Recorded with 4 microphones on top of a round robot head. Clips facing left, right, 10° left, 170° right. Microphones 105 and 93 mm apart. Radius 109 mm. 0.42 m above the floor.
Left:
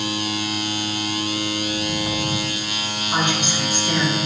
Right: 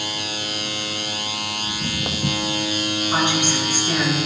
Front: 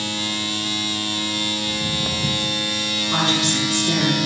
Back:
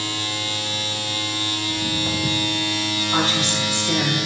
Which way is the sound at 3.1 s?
10° right.